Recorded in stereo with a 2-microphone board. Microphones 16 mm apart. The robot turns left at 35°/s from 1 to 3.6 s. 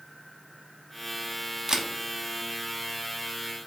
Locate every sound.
1.7 s a camera shutter: 45° right (ahead or behind), 0.6 m; by 1.9 s 50° right (ahead or behind), 0.6 m